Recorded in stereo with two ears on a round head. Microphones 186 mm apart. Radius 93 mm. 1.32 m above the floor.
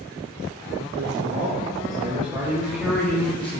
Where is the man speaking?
50° right (ahead or behind), 2 m; by 3.6 s 30° left (ahead or behind), 1.2 m.